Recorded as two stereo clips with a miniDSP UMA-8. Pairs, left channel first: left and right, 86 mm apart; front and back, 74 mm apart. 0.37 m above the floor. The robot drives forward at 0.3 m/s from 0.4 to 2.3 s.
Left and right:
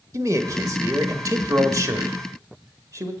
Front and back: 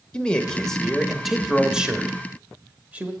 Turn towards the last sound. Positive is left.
turn(degrees=-115)